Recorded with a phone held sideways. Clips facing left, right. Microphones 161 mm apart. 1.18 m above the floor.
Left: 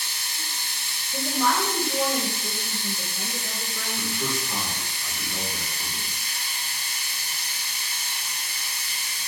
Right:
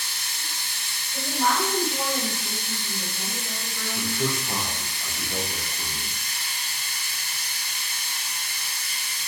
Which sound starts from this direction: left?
A woman speaking, at 1.1 s.